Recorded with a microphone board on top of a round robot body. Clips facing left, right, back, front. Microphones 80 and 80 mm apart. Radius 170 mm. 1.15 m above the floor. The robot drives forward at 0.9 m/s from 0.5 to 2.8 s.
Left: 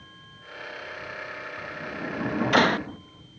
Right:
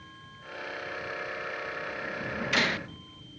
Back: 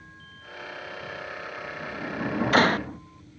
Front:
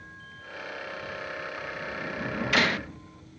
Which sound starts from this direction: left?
A sliding door, at 1.6 s.